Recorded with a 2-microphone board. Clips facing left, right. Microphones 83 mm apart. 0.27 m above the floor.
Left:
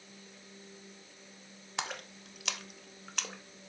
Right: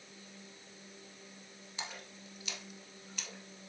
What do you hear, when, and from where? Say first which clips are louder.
1.8 s a splash: left 7 dB; 80° left, 0.6 m